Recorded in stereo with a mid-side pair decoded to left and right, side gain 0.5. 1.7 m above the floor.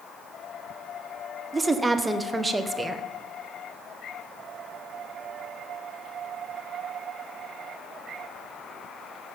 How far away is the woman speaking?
About 1.0 m.